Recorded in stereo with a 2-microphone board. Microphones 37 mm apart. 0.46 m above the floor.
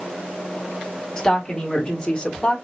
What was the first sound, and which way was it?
A woman speaking, 15° left (ahead or behind).